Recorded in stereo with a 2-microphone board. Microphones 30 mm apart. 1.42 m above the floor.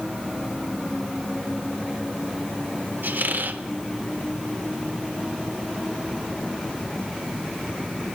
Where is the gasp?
I don't hear a gasp.